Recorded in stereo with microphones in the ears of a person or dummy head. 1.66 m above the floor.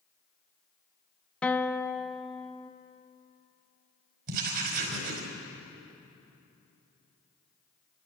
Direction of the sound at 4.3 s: 60° right (ahead or behind).